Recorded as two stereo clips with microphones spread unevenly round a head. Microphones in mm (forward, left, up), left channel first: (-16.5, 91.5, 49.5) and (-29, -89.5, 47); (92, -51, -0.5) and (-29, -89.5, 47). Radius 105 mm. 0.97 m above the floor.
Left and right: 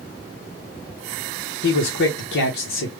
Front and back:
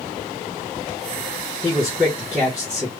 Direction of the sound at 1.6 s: 100° left.